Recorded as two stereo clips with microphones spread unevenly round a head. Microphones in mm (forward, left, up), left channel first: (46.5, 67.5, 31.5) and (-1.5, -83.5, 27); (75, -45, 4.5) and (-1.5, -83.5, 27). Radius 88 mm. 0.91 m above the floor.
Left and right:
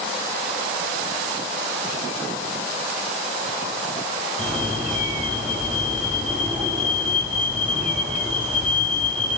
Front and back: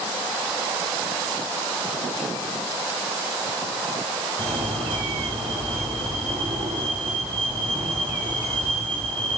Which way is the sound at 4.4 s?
160° left.